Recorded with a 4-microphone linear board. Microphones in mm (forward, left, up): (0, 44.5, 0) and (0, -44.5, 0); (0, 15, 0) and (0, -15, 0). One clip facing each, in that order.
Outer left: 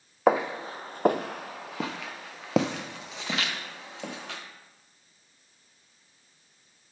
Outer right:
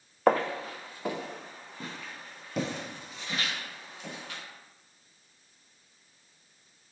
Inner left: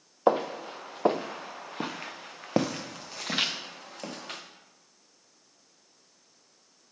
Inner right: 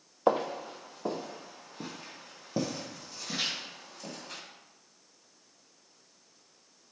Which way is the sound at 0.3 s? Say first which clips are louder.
Outer left 1 dB, inner left 2 dB; 5° left (ahead or behind).